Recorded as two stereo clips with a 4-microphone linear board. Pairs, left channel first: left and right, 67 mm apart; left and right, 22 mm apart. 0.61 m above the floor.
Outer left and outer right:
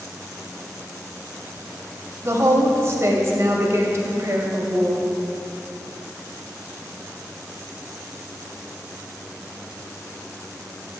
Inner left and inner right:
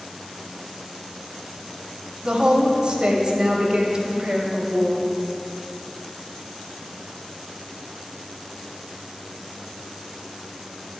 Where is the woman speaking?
40° right (ahead or behind), 2.5 m.